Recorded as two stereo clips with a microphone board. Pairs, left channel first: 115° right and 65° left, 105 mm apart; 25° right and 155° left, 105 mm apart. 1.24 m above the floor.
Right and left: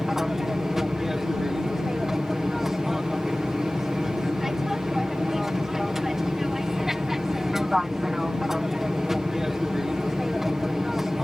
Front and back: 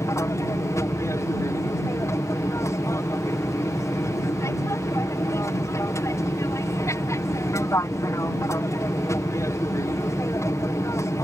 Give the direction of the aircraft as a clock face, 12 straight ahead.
1 o'clock.